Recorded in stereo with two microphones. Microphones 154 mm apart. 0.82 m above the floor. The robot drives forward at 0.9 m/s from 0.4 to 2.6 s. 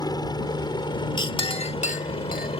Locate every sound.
0.0 s a helicopter: 25° left (ahead or behind); by 2.6 s 35° left (ahead or behind)
1.2 s a clink: 30° left (ahead or behind); by 2.6 s 75° left (ahead or behind)